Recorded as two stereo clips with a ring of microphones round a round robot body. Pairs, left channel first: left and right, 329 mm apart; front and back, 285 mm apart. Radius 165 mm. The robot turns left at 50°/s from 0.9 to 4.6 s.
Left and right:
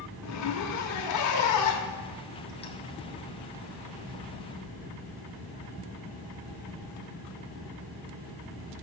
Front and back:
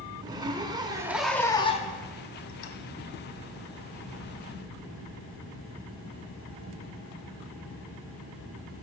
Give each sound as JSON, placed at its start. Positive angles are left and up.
{"t": 0.2, "sound": "a zipper", "azimuth_deg": 105, "distance_m": 0.7}